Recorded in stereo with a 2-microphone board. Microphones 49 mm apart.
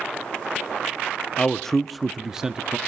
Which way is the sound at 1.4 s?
15° left (ahead or behind).